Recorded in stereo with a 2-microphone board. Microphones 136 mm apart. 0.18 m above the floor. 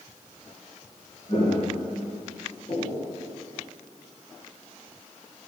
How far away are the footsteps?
About 3.5 m.